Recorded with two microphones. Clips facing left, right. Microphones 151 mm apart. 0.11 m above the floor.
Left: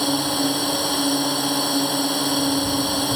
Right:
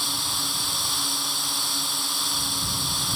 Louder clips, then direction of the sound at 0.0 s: Left 14 dB; 65° left (ahead or behind).